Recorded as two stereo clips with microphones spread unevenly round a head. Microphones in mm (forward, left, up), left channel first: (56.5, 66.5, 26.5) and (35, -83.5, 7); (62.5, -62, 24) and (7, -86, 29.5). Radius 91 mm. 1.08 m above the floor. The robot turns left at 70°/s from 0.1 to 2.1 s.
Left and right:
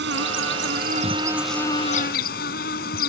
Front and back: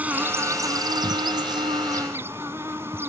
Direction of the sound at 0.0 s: 95° right.